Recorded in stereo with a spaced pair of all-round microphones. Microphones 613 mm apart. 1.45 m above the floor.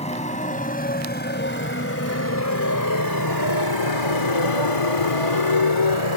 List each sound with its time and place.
0.0 s a motorcycle: 10° left (ahead or behind); by 6.2 s 50° left (ahead or behind)